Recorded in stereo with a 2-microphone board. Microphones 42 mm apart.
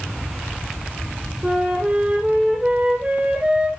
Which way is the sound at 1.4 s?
30° right (ahead or behind).